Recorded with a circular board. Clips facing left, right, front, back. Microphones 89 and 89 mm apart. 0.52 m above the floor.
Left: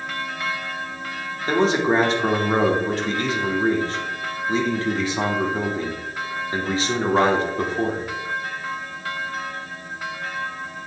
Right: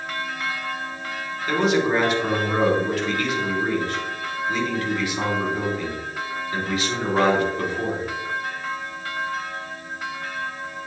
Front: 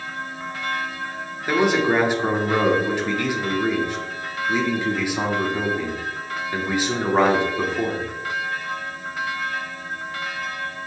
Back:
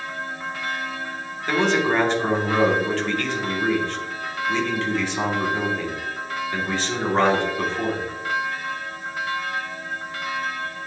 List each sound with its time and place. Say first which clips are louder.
1.5 s a man speaking: left 1 dB, front 1 dB; 70° left, 1.4 m